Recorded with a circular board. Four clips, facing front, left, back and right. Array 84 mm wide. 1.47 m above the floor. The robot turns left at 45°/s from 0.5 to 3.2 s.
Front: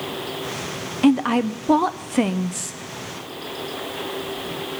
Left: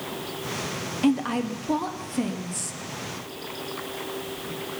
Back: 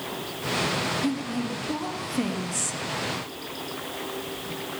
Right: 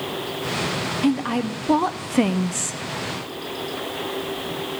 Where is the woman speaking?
Straight ahead, 0.6 m; by 2.8 s 80° right, 0.6 m.